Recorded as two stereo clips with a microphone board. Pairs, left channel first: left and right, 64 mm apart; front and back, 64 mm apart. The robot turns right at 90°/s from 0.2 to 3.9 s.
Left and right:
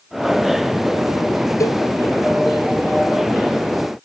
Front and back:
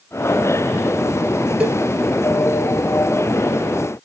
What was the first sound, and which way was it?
A cowbell, 115° left.